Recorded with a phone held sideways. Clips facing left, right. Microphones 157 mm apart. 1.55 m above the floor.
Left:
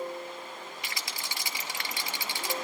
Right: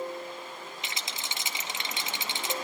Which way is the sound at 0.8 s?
25° right (ahead or behind).